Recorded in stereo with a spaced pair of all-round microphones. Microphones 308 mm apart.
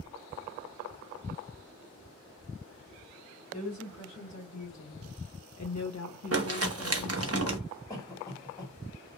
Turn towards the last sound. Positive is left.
turn(degrees=10)  # may be behind; listen again after turning